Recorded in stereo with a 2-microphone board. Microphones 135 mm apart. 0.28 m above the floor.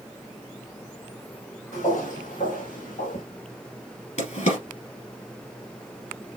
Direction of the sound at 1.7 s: 70° left (ahead or behind).